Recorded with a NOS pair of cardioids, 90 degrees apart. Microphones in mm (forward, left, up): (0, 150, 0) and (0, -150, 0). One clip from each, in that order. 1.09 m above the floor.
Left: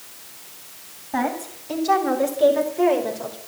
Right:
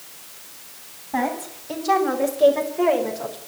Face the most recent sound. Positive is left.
turn(degrees=-5)